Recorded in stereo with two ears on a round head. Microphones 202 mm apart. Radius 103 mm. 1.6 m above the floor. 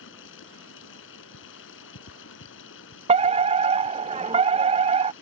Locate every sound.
0.0 s running water: 60° left (ahead or behind)
3.1 s a fire alarm: 25° right (ahead or behind)